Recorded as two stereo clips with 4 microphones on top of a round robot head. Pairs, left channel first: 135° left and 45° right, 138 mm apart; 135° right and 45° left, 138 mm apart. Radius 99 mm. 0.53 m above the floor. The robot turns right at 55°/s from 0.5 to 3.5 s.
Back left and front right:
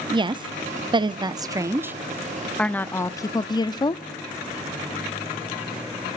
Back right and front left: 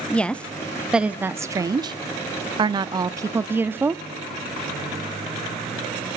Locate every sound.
0.1 s a woman speaking: 60° right, 0.7 m; by 4.0 s 105° left, 0.7 m